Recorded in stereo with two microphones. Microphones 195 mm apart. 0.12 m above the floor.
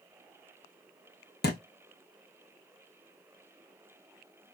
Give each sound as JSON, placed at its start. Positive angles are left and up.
{"t": 1.4, "sound": "a thud", "side_deg": 55, "distance_m": 1.2}